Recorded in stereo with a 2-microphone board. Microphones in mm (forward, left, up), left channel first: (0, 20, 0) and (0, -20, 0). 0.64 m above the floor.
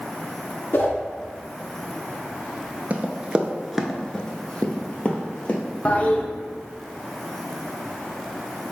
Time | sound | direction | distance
0.7 | a whoosh | 60° left (ahead or behind) | 0.8 m
2.9 | running footsteps | 35° right (ahead or behind) | 0.7 m
5.8 | a toilet flushing | 35° left (ahead or behind) | 0.5 m